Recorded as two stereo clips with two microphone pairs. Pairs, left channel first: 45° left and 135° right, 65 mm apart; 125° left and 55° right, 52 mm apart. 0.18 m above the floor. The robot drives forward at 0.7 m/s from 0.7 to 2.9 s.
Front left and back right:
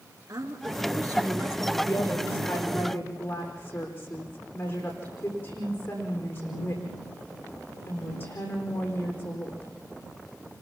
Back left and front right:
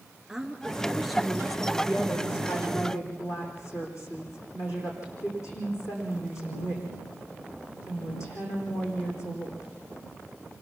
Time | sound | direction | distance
0.3 | a woman speaking | 140° right | 2.5 m
1.8 | a woman speaking | 100° left | 10 m